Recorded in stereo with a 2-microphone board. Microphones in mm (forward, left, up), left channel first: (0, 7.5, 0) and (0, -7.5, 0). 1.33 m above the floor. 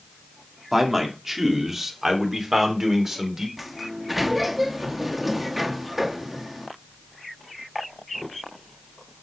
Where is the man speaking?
10° right (ahead or behind), 2.5 m; by 3.5 s 15° right (ahead or behind), 4.5 m.